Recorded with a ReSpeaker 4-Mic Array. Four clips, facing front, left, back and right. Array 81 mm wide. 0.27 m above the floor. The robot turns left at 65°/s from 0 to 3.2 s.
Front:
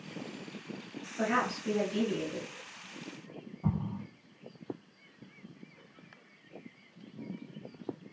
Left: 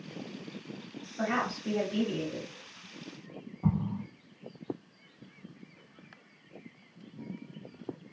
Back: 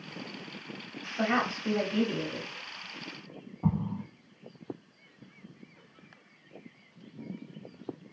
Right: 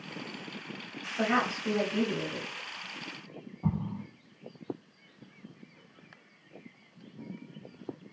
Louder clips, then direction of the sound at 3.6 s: Left 2 dB, back 4 dB; 175° left.